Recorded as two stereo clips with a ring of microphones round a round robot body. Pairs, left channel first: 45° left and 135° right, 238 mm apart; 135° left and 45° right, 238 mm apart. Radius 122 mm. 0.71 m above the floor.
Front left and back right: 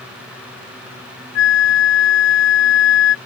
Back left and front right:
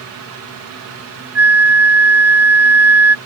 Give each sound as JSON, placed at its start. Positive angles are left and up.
{"t": 1.4, "sound": "a flute", "azimuth_deg": 35}